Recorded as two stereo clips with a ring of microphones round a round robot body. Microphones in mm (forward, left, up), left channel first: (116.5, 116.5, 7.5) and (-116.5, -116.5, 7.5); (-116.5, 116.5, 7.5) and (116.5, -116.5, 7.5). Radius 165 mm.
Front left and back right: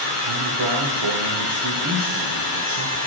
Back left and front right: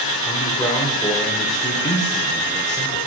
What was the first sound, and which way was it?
A man speaking, 145° right.